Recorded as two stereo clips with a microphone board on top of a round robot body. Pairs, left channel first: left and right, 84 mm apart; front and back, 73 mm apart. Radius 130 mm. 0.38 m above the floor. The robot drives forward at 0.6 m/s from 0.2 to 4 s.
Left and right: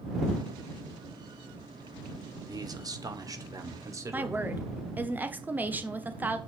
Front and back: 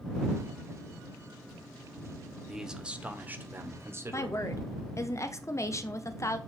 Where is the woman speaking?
30° right, 1.3 m.